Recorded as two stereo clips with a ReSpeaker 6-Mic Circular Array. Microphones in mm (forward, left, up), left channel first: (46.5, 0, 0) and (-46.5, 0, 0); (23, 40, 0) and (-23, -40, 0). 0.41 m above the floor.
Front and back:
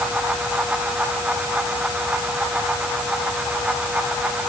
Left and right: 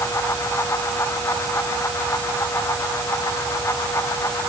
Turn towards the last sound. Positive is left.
No sound to turn to.